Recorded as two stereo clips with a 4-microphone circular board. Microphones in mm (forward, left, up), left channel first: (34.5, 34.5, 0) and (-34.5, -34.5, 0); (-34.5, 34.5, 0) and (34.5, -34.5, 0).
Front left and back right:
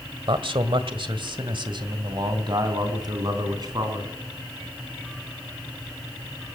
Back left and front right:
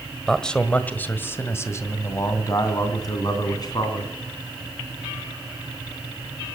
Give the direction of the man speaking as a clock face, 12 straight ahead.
5 o'clock.